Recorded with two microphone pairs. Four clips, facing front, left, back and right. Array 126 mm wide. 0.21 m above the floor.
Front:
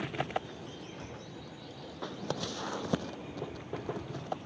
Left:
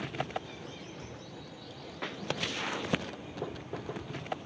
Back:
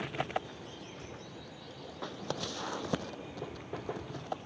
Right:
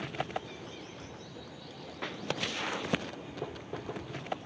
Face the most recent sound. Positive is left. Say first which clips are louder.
# left 1 dB, front 2 dB
turn(degrees=-5)